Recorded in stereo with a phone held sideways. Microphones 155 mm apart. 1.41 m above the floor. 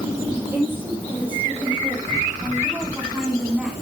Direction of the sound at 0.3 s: 15° right (ahead or behind).